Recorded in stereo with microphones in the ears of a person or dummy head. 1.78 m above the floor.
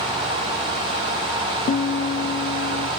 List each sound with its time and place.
1.7 s a guitar: 35° left (ahead or behind)